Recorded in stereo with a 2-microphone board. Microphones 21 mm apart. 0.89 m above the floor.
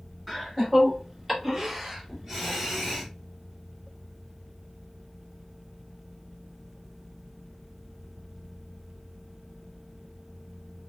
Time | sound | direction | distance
0.3 | laughter | 10° right (ahead or behind) | 1.5 m